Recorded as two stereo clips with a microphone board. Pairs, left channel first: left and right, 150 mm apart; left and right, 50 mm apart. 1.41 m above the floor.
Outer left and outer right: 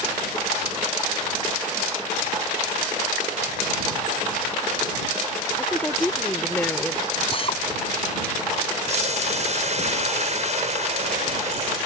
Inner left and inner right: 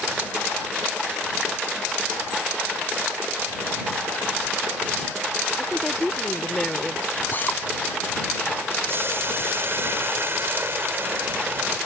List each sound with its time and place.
5.6 s a woman speaking: 10° left (ahead or behind)
7.3 s a drill: 40° left (ahead or behind)
8.9 s boiling: 50° right (ahead or behind)